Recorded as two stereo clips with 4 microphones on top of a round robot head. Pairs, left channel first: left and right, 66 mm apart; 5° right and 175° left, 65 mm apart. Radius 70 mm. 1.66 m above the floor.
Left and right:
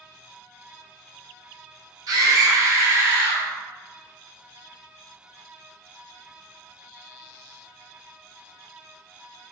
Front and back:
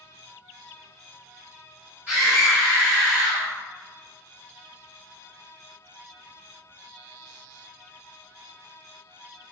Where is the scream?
110° right, 1.5 m; by 3.5 s 150° right, 1.5 m.